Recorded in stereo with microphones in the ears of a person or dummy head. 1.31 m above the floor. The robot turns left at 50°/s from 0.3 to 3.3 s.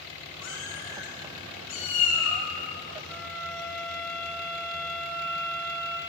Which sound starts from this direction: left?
A cat meowing, at 0.4 s.